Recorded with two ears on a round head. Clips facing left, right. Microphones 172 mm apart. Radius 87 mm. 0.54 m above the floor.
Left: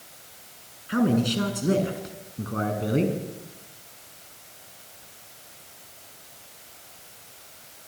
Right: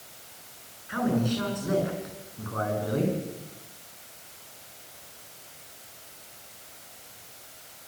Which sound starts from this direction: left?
A man speaking, at 0.9 s.